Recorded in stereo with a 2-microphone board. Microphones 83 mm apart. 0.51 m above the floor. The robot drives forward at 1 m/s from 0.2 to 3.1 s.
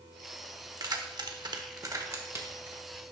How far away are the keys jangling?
About 1.1 m.